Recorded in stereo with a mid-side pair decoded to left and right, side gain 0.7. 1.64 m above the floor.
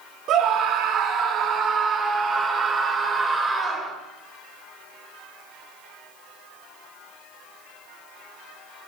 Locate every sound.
0.3 s a scream: 55° right, 4.5 m; by 3.9 s 15° right, 6.5 m